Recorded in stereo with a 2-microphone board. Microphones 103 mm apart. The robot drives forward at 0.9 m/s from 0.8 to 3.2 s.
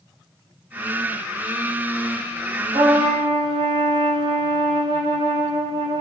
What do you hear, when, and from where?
2.7 s a trumpet: 60° right (ahead or behind), 3.5 m; by 6.0 s 70° right (ahead or behind), 3.5 m